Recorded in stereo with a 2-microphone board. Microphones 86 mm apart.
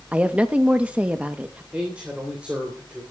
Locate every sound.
0.1 s a woman speaking: 15° right (ahead or behind), 0.7 m
1.7 s a man speaking: 15° right (ahead or behind), 2.5 m